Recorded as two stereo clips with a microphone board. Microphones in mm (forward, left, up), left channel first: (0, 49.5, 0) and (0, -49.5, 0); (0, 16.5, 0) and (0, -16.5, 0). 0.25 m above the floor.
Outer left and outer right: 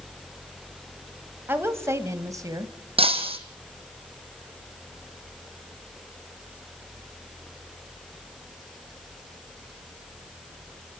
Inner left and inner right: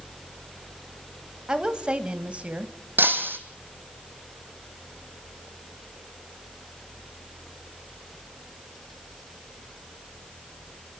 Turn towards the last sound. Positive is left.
turn(degrees=-75)  # may be behind; listen again after turning